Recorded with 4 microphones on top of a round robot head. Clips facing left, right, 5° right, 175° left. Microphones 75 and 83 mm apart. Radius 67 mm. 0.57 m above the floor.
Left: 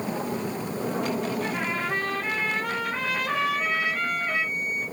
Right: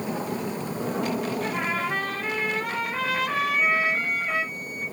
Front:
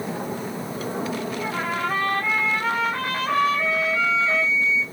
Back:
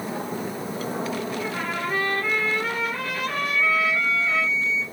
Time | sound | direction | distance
1.4 | a trumpet | 5° right | 2.5 m
3.4 | a flute | 10° right | 2.5 m